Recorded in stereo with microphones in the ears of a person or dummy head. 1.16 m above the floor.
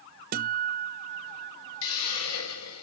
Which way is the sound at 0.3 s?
45° right (ahead or behind).